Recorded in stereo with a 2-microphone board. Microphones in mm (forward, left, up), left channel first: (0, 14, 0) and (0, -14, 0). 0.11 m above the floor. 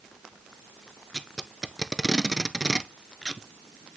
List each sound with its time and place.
1.1 s tape being pulled: centre (ahead or behind), 0.5 m